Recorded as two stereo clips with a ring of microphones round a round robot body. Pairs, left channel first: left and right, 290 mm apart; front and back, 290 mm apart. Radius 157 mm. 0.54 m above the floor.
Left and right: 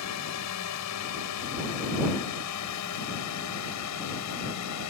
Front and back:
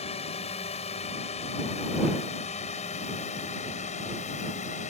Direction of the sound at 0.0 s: 70° left.